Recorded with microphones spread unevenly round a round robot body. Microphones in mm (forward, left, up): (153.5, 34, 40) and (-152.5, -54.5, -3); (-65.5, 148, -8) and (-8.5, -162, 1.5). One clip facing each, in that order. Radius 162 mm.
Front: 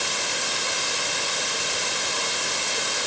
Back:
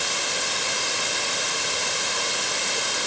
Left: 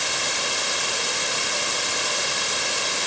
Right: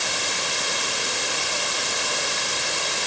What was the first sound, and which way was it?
Only background noise.